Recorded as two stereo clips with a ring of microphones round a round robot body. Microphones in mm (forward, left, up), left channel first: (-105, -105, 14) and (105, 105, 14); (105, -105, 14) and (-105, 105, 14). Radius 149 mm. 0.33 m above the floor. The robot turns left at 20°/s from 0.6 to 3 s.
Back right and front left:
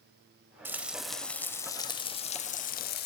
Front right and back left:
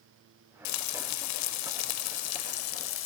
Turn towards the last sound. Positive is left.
turn(degrees=-85)